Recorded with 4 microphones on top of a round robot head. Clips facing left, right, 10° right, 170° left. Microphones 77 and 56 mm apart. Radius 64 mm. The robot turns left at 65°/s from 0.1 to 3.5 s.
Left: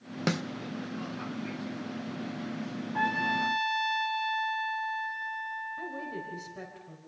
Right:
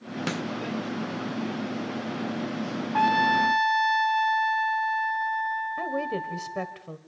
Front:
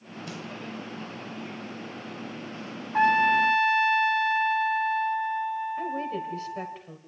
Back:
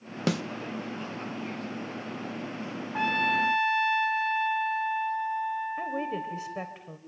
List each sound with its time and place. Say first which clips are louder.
0.3 s a snare drum: left 1 dB, back 12 dB; 170° left, 0.8 m; by 0.4 s 160° left, 0.8 m
2.9 s a trumpet: right 8 dB, front 6 dB; 75° right, 1.3 m; by 6.8 s 110° right, 1.3 m
5.8 s a woman speaking: right 9 dB, front 1 dB; 115° right, 1.3 m